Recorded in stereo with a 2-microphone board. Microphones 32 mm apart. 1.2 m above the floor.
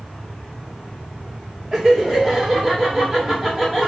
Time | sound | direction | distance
1.7 | laughter | 15° right (ahead or behind) | 1.4 m